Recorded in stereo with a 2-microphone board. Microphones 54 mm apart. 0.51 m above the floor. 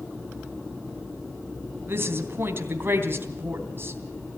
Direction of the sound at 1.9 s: 45° right (ahead or behind).